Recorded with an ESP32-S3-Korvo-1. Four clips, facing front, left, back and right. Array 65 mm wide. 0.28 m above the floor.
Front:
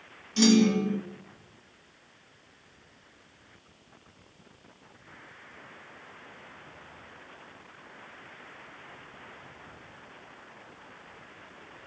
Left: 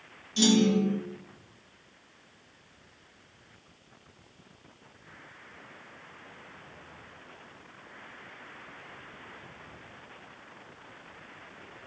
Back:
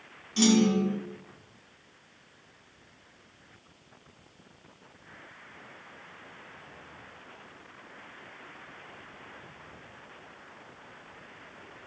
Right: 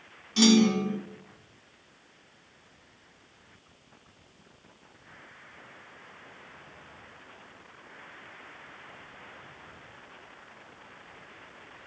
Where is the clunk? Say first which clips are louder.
Right 2 dB, front 1 dB; 95° right, 1.6 m.